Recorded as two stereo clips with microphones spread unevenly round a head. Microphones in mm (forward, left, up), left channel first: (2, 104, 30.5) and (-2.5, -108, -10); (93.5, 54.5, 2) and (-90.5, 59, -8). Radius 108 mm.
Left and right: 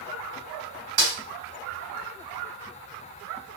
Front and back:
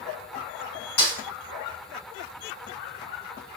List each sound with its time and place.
1.0 s a snare drum: 50° right, 1.8 m